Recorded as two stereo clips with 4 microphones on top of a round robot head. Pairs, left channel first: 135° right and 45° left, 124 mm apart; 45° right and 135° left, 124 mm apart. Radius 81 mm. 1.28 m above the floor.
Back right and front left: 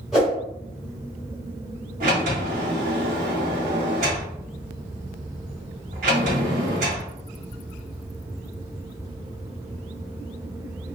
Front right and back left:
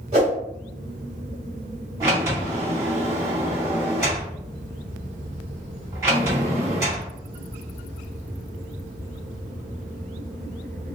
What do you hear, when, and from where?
0.1 s a whoosh: 130° left, 1.1 m
2.0 s a sliding door: 70° left, 1.7 m